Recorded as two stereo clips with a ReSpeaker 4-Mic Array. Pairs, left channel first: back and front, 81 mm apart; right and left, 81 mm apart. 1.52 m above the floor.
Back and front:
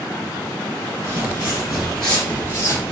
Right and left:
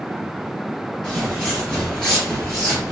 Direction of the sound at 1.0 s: 10° right.